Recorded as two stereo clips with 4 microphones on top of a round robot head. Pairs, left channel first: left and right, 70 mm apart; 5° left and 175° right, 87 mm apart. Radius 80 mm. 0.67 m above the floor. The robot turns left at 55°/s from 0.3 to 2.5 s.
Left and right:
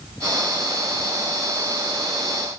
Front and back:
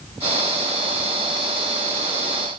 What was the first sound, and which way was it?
Only background noise.